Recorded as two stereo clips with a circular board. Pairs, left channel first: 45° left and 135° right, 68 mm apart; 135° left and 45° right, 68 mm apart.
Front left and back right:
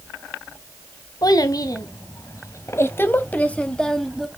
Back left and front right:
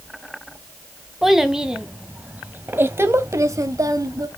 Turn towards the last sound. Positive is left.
turn(degrees=-45)